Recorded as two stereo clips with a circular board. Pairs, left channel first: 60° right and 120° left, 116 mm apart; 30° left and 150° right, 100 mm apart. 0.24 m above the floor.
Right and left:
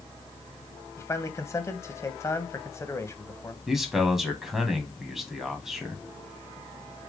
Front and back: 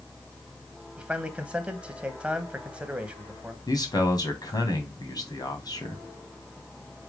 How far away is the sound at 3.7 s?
About 2 m.